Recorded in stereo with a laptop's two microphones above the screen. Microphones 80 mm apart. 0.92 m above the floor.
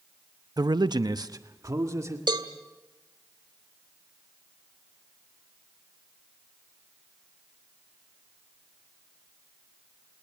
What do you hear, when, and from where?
0.6 s a man speaking: 55° right (ahead or behind), 0.6 m; by 2.2 s 40° right (ahead or behind), 2 m
2.3 s a cowbell: 80° right, 1.7 m